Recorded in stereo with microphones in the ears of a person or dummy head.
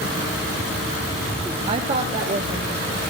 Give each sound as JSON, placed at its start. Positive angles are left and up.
{"t": 1.7, "sound": "a woman speaking", "side_deg": -25, "distance_m": 0.5}